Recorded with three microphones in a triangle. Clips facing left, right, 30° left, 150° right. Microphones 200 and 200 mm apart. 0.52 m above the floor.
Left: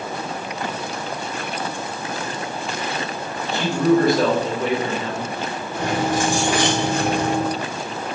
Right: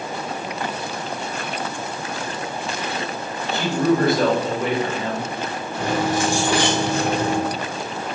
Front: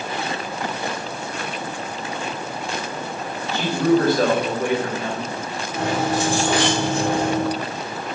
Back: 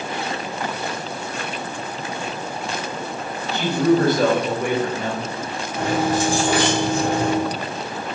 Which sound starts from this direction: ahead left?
Keys jangling, at 5.7 s.